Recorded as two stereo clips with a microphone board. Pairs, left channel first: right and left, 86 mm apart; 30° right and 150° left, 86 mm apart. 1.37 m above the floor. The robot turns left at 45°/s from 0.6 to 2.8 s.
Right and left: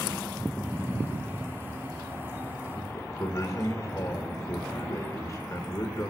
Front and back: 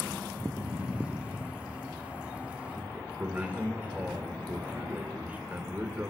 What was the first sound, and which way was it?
A man speaking, 140° right.